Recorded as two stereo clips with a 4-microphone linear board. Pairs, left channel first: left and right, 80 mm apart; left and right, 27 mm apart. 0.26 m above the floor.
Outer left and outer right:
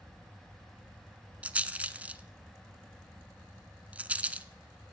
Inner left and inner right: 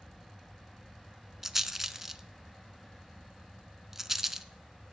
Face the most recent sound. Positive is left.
turn(degrees=-15)  # may be behind; listen again after turning